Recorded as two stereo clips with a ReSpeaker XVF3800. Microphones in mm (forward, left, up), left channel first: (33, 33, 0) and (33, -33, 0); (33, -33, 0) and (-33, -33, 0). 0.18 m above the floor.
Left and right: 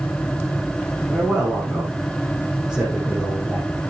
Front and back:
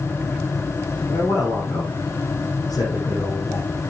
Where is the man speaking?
5° right, 7 m.